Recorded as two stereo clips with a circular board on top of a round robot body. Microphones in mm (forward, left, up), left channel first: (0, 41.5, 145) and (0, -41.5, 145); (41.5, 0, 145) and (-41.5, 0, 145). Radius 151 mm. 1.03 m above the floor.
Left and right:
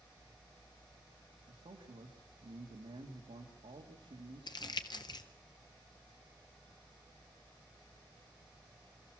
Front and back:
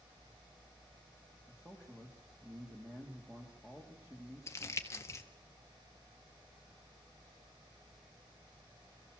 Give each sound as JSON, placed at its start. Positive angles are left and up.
{"t": 1.5, "sound": "a man speaking", "azimuth_deg": -100, "distance_m": 2.0}
{"t": 4.5, "sound": "crumpling", "azimuth_deg": 55, "distance_m": 1.7}